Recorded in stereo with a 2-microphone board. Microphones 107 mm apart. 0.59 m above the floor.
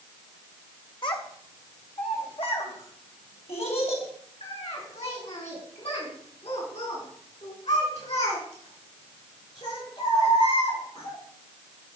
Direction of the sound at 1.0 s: 50° left (ahead or behind).